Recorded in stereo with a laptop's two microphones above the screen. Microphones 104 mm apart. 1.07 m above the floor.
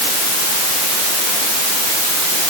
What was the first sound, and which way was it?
Only background noise.